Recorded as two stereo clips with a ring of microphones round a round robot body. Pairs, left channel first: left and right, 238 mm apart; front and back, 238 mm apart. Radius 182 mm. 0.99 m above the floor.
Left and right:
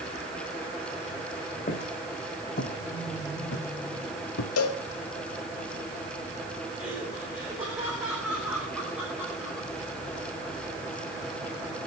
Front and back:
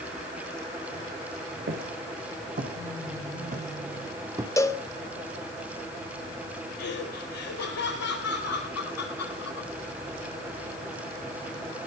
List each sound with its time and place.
1.7 s footsteps: 140° left, 5.5 m; by 4.5 s 105° left, 2.5 m
4.6 s a cowbell: 80° left, 1.8 m
6.8 s laughter: 5° right, 5 m